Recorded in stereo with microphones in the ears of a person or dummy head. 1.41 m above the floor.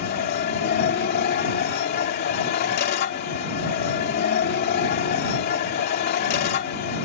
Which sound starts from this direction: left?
A machine running, at 0.0 s.